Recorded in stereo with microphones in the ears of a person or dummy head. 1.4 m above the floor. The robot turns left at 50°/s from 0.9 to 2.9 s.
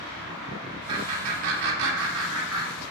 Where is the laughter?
25° right (ahead or behind), 0.9 m; by 2.9 s 55° right (ahead or behind), 0.9 m.